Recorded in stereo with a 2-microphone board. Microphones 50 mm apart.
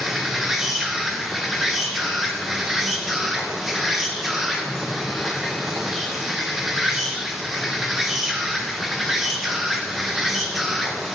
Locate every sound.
0.0 s an insect: 5° right (ahead or behind), 0.8 m